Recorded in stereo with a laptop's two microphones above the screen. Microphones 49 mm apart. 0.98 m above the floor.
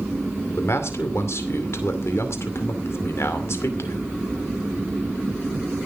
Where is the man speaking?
60° left (ahead or behind), 2.5 m.